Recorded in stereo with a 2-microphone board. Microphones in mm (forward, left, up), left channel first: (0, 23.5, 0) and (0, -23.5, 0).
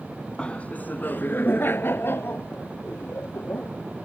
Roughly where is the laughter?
Left.